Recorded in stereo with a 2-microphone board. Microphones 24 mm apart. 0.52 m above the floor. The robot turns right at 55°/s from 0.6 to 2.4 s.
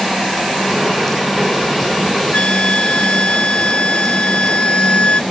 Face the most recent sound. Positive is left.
turn(degrees=55)  # may be behind; listen again after turning